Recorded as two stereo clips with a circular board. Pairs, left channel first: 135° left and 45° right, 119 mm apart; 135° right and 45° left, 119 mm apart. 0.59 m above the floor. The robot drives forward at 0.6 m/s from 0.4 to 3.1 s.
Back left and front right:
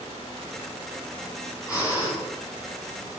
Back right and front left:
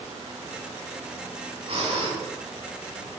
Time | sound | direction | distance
1.7 | breathing | 80° left | 4 m